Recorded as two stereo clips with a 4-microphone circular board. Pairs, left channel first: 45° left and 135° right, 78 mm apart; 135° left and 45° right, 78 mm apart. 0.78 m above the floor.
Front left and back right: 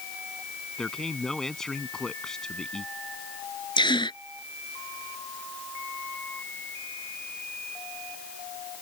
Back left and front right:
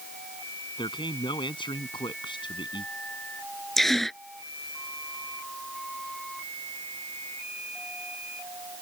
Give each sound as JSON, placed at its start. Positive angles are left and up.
{"t": 0.8, "sound": "a man speaking", "azimuth_deg": 130}
{"t": 3.8, "sound": "a gasp", "azimuth_deg": 50}